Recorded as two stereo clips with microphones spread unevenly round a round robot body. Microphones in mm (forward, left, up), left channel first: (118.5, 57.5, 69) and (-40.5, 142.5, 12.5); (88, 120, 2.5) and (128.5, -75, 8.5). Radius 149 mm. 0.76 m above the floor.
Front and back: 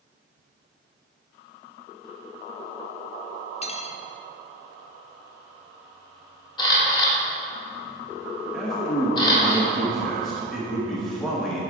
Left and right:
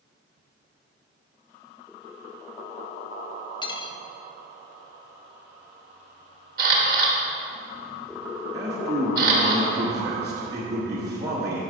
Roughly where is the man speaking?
Behind right.